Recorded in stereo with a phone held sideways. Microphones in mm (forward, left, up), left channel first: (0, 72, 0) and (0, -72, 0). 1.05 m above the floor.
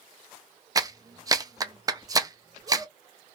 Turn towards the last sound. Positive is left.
turn(degrees=-25)  # may be behind; listen again after turning